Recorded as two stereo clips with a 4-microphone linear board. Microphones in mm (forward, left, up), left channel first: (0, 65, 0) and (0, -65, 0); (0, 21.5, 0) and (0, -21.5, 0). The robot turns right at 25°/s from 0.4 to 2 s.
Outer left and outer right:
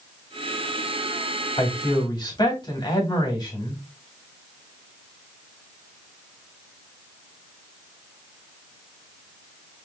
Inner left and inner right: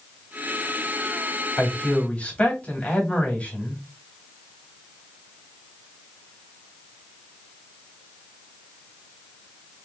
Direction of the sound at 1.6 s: 40° left (ahead or behind).